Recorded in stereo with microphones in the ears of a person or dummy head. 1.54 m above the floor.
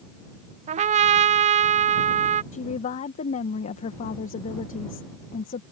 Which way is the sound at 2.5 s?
40° left (ahead or behind).